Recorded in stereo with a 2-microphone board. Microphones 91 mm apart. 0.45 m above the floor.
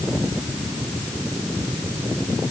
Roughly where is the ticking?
I don't hear ticking.